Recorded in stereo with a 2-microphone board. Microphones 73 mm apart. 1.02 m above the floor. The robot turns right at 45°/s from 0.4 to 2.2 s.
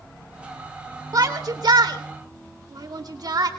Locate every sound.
1.1 s a shout: 60° right (ahead or behind), 3 m; by 3.5 s 70° right (ahead or behind), 3 m